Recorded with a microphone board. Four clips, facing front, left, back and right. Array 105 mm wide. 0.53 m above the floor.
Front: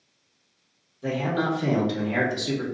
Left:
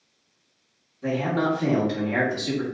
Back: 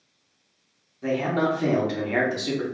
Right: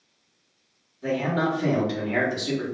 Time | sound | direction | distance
1.0 | a man speaking | 170° left | 1.1 m